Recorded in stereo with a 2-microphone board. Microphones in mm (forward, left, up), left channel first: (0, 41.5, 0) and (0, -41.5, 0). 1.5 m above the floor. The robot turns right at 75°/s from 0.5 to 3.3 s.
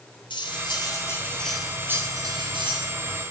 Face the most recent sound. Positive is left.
turn(degrees=-50)